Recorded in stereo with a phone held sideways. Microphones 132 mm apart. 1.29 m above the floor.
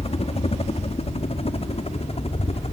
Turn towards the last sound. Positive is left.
turn(degrees=50)  # may be behind; listen again after turning